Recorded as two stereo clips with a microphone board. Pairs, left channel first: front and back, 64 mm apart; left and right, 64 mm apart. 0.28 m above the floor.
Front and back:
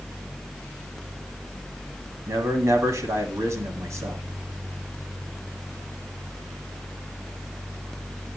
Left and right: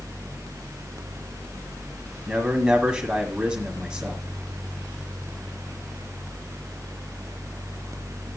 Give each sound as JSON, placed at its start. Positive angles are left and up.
{"t": 2.3, "sound": "a man speaking", "azimuth_deg": -160, "distance_m": 1.8}